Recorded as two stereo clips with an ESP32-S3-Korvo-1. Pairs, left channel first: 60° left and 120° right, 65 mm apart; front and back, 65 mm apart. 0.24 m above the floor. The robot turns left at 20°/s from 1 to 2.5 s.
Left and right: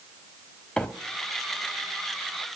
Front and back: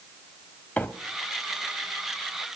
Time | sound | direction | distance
0.8 | a microwave | 15° left | 1.0 m